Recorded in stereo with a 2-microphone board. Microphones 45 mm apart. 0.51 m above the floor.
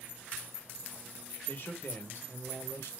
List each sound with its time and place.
1.5 s a man speaking: 45° left (ahead or behind), 1.7 m; by 2.9 s 60° left (ahead or behind), 2.0 m